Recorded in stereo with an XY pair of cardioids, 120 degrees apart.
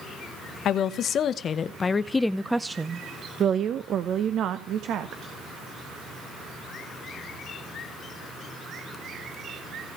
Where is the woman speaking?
65° left, 1.1 m; by 5.3 s 70° right, 1.6 m.